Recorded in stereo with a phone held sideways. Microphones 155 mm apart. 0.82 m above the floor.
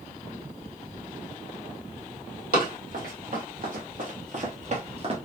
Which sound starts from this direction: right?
Running footsteps, at 2.5 s.